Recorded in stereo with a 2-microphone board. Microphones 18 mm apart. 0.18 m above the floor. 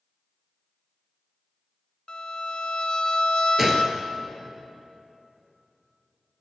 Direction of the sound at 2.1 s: 50° left (ahead or behind).